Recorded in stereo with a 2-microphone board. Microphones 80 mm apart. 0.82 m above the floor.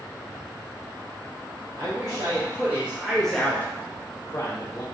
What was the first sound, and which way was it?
A man speaking, 40° right (ahead or behind).